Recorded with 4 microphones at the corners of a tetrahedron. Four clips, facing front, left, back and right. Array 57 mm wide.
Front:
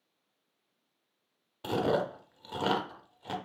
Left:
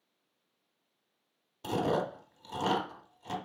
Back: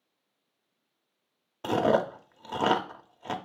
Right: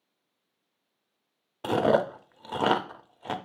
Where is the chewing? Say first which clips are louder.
Right 7 dB, back 5 dB; 120° right, 0.6 m.